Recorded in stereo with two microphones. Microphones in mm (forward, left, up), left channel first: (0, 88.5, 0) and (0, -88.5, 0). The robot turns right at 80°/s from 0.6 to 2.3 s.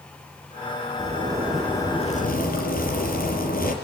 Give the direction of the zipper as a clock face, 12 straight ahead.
2 o'clock.